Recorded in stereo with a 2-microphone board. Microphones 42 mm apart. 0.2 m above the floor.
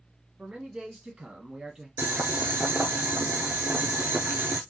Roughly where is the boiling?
Right.